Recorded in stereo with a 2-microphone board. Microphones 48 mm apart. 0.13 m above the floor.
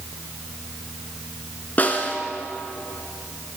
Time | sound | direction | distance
1.8 | a snare drum | 35° left (ahead or behind) | 1.5 m